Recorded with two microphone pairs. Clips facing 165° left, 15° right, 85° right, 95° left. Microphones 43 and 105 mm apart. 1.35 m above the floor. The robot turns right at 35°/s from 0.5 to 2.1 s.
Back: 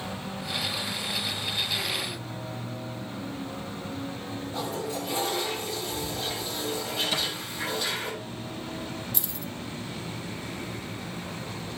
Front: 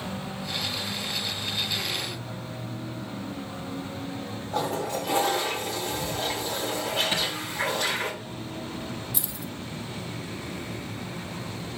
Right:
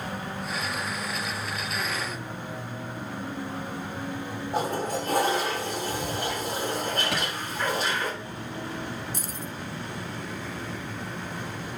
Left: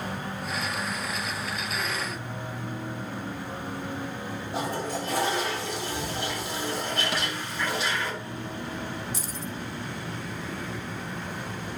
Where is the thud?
75° right, 5 m.